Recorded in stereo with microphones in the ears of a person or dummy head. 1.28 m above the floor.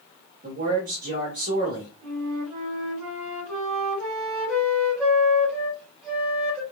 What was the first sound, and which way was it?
A man speaking, 45° right (ahead or behind).